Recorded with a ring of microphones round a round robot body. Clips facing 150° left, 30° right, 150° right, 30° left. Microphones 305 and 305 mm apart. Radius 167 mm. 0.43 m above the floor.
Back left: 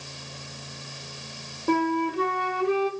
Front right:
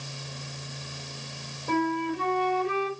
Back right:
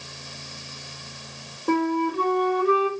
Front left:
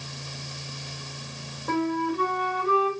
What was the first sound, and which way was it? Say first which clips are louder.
A flute: back left 3 dB, back right 3 dB; 155° left.